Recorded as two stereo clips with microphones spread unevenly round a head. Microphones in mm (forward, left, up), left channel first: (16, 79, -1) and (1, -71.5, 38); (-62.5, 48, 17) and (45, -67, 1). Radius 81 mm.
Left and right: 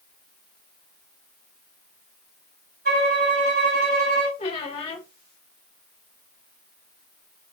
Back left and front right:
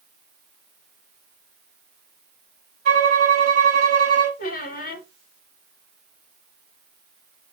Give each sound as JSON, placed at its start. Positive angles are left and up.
{"t": 2.9, "sound": "a violin", "azimuth_deg": -85, "distance_m": 2.5}
{"t": 4.4, "sound": "a squeak", "azimuth_deg": 140, "distance_m": 2.0}